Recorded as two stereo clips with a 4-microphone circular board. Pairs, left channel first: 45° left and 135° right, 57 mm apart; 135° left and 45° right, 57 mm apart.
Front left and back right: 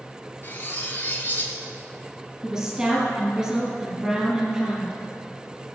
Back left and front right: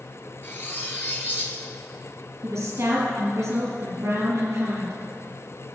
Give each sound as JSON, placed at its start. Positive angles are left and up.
{"t": 0.4, "sound": "cutlery clinking", "azimuth_deg": 90, "distance_m": 1.5}
{"t": 2.4, "sound": "a woman speaking", "azimuth_deg": -75, "distance_m": 2.0}